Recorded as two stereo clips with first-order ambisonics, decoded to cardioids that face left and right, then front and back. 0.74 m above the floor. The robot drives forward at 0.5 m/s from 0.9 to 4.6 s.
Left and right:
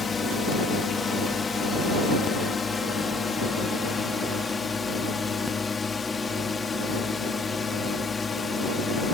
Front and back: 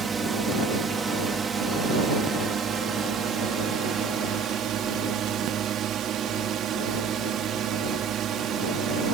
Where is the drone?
130° left; by 9.2 s 155° left.